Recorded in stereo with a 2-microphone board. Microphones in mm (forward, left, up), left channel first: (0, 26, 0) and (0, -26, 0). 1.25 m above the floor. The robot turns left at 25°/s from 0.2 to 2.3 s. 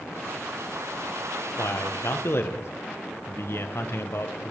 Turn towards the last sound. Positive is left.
turn(degrees=50)  # may be behind; listen again after turning